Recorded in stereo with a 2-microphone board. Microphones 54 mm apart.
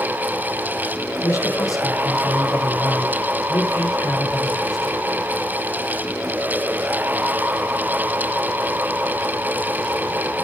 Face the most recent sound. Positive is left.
turn(degrees=80)